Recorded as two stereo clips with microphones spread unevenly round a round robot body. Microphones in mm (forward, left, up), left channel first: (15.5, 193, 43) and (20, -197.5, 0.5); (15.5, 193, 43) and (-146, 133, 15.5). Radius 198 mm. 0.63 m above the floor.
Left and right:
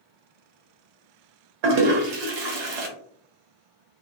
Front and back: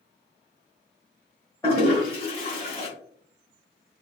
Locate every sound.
1.6 s a toilet flushing: 60° right, 1.1 m